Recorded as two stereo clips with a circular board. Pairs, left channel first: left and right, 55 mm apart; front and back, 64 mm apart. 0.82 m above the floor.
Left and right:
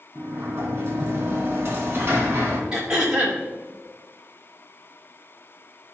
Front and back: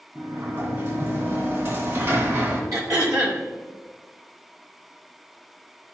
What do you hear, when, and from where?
0.1 s a sliding door: 140° right, 2.5 m
2.7 s throat clearing: 170° right, 2 m